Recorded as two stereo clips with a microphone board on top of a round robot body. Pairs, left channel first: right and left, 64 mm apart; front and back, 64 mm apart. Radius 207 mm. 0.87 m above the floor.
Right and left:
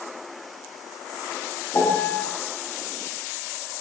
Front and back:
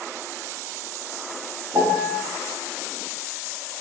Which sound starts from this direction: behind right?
A piano, at 1.7 s.